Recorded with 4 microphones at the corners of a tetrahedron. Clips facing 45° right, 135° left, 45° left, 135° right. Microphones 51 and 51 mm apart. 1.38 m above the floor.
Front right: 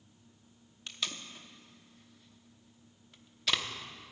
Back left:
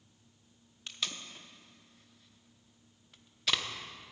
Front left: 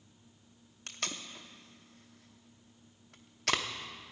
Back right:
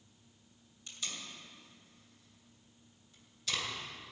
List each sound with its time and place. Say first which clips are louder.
0.9 s tape being pulled: even, front left 4 dB; 45° left, 0.8 m